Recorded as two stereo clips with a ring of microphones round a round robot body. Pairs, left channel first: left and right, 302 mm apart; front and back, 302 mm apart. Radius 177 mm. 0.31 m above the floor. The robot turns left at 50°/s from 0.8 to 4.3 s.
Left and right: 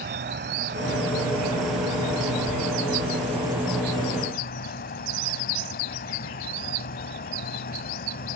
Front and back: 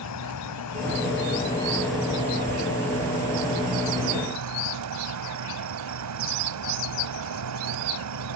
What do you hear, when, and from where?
0.0 s an insect: 35° right; by 8.4 s 150° left